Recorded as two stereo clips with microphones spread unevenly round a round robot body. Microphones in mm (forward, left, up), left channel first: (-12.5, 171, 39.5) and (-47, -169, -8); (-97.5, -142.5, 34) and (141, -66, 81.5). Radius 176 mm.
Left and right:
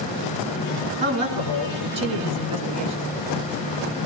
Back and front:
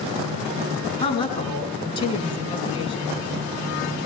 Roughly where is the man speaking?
Right.